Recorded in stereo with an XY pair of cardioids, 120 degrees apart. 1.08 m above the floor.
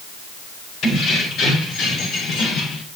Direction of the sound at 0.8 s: 70° left.